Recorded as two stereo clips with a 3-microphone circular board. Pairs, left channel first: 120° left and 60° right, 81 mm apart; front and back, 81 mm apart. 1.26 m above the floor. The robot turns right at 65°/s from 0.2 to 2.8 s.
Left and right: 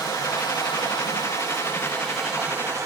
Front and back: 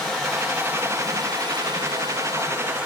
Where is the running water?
80° left, 4.5 m; by 2.9 s 110° right, 4.5 m.